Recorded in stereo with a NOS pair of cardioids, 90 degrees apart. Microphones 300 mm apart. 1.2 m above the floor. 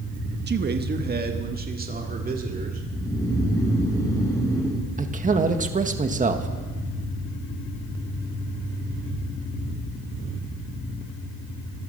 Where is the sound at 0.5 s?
35° right, 1.1 m; by 2.8 s 30° right, 3 m.